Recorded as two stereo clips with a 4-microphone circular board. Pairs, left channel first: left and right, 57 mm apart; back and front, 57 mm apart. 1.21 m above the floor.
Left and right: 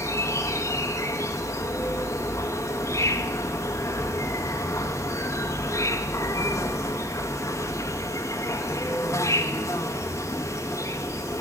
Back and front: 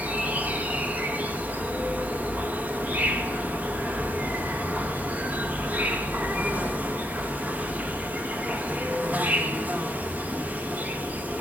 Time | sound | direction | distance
0.0 | an insect | 65° left | 1.0 m